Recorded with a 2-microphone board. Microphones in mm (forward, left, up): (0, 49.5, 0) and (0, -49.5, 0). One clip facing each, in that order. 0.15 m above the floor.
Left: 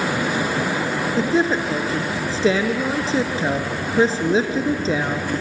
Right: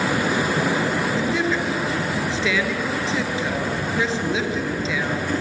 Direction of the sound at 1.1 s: 35° left (ahead or behind).